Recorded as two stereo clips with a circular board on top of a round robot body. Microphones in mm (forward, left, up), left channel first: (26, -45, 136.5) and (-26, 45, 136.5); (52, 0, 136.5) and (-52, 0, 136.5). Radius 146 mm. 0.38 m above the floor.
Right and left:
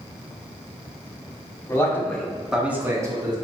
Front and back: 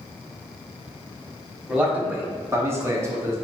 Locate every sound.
1.7 s a man speaking: 110° right, 1.5 m; by 3.4 s 130° left, 1.4 m